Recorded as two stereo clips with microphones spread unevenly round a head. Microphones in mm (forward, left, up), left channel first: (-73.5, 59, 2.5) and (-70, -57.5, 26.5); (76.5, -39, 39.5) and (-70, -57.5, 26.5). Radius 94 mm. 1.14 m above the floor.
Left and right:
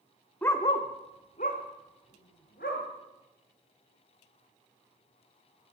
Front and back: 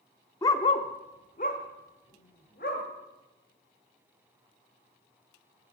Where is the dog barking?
Straight ahead, 0.7 m; by 2.8 s 55° left, 2.5 m.